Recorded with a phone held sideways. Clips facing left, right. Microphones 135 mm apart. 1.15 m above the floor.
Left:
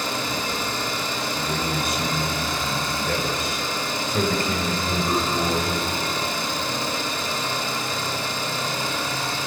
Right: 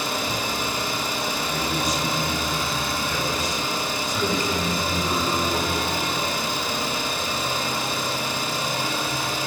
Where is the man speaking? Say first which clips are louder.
Even; 60° left (ahead or behind), 5 m.